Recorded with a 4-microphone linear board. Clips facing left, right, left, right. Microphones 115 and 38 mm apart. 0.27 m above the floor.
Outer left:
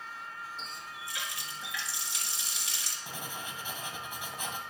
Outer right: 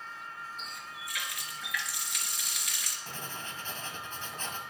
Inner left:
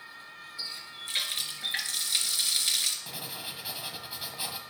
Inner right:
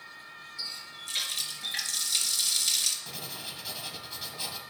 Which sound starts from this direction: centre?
Writing, at 3.1 s.